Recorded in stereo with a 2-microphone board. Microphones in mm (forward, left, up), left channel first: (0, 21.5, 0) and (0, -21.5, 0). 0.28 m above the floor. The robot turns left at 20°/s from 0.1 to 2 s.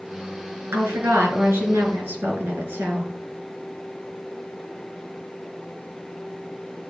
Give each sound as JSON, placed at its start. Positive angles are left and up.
{"t": 0.7, "sound": "a woman speaking", "side_deg": -75, "distance_m": 4.0}